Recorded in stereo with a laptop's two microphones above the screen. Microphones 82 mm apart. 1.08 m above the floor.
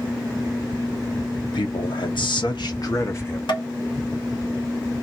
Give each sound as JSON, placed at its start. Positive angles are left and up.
{"t": 1.4, "sound": "a man speaking", "side_deg": 70, "distance_m": 1.3}
{"t": 3.5, "sound": "tapping", "side_deg": 70, "distance_m": 1.0}